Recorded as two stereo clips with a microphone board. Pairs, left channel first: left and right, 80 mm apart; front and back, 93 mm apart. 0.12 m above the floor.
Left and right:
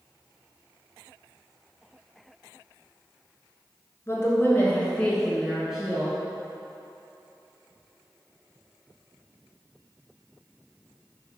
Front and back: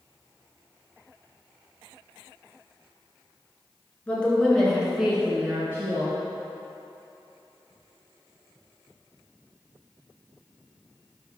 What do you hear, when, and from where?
4.1 s a woman speaking: 65° left, 1.8 m; by 6.2 s 155° right, 1.7 m